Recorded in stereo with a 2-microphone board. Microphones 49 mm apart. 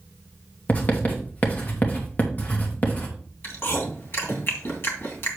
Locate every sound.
0.7 s writing: 35° left (ahead or behind), 2.5 m
3.4 s chewing: 55° left (ahead or behind), 2.5 m